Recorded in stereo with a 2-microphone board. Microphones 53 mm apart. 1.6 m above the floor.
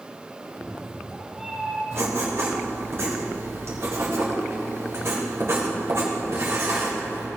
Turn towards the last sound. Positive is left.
turn(degrees=-55)  # may be behind; listen again after turning